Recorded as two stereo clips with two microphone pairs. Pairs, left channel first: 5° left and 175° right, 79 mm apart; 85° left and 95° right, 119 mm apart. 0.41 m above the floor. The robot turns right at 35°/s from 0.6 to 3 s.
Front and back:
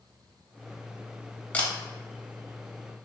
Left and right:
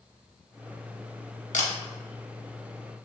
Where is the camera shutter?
75° left, 0.6 m; by 1.7 s 80° left, 0.6 m.